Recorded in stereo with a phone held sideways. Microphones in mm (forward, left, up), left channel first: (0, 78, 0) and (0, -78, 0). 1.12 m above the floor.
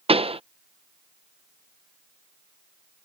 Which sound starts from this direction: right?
A pop, at 0.1 s.